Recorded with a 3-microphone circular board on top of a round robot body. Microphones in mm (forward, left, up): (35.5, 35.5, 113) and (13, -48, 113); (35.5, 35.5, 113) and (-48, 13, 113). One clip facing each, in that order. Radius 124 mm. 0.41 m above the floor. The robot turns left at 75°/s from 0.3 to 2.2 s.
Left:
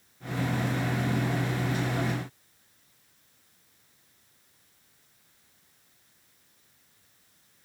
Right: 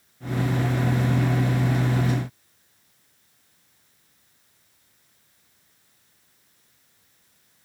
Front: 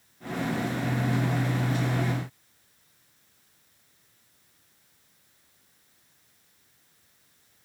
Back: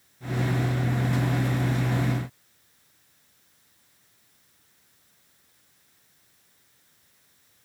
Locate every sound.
Only background noise.